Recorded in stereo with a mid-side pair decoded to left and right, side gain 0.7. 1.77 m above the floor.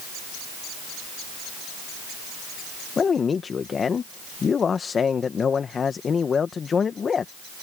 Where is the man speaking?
30° left.